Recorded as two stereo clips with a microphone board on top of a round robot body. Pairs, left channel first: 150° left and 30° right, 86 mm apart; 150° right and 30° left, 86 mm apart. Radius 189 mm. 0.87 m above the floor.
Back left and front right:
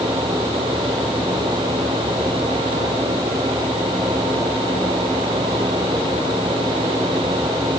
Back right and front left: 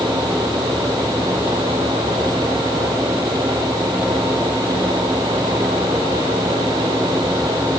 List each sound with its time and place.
Only background noise.